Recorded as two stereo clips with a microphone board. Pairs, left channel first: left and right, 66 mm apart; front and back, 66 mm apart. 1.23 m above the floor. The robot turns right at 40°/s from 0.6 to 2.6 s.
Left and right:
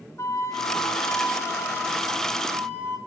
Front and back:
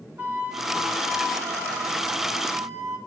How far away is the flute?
About 2.5 m.